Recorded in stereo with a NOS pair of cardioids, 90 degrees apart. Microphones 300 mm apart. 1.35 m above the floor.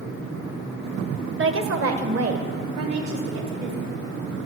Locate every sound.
1.4 s a woman speaking: 40° right, 1.1 m; by 3.9 s 65° right, 3 m